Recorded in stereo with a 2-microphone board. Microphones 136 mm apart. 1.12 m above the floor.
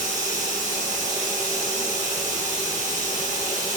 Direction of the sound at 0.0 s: 65° right (ahead or behind).